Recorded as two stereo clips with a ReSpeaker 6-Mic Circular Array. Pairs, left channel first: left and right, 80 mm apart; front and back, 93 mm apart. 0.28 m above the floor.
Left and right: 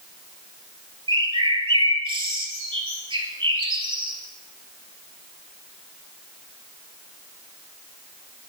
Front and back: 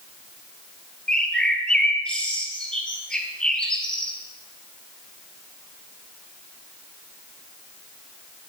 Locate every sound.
1.1 s a bird: 80° right, 1.4 m